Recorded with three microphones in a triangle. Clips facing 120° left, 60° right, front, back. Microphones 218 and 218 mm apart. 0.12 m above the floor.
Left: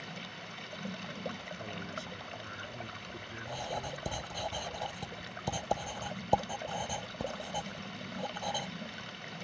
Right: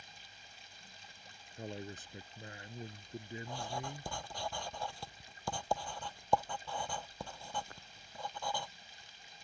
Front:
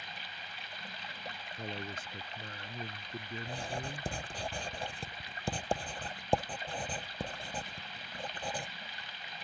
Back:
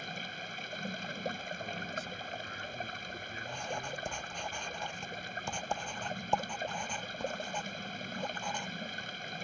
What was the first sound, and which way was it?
Running water, 135° left.